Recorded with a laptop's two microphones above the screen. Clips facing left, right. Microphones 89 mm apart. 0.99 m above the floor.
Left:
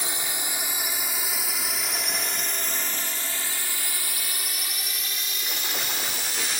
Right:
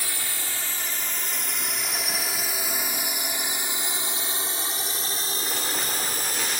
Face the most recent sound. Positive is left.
turn(degrees=-45)  # may be behind; listen again after turning